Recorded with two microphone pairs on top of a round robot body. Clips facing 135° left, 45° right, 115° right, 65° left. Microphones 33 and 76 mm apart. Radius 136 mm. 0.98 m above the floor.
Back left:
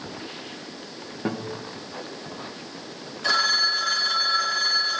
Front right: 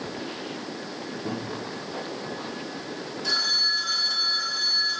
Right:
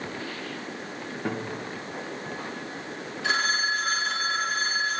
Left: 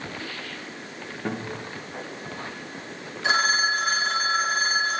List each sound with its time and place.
1.2 s a guitar: 165° left, 1.1 m
3.2 s a phone ringing: 130° left, 1.2 m